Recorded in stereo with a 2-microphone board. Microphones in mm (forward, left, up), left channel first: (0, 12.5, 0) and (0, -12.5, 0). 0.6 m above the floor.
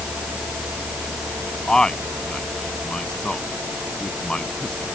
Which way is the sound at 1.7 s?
35° left (ahead or behind).